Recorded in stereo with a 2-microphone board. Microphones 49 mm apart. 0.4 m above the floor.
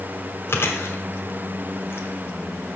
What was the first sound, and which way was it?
Chewing, 55° left (ahead or behind).